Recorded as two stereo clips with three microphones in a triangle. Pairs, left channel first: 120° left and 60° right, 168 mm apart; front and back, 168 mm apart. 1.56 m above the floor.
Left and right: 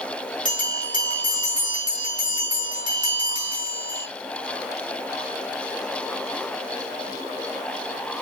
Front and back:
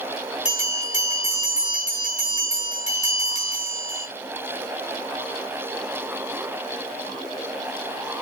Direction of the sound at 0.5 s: 150° left.